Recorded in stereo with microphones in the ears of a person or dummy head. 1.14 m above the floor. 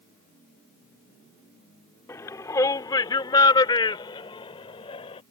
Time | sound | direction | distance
2.1 | a shout | 10° left (ahead or behind) | ?